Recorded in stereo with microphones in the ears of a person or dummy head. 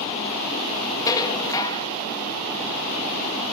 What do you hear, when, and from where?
1.1 s dishes clattering: 20° left (ahead or behind), 1.6 m